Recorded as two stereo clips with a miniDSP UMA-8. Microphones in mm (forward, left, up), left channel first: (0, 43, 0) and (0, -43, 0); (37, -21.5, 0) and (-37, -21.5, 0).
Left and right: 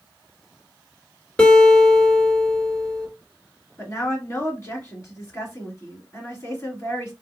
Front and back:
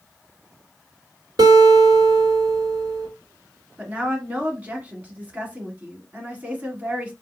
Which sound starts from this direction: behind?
A guitar, at 1.4 s.